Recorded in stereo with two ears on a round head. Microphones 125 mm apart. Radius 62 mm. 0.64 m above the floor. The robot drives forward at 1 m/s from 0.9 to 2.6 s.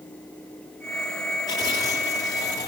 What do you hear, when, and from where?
1.5 s tearing paper: 30° left (ahead or behind), 8.5 m